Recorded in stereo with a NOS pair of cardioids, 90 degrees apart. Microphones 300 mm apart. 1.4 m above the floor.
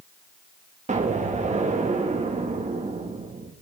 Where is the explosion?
25° right, 2.5 m.